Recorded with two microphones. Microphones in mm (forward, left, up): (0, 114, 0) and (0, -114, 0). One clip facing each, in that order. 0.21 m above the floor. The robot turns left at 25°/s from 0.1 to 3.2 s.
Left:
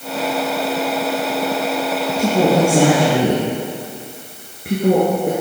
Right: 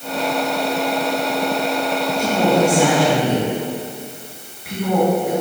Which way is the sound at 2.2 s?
35° left (ahead or behind).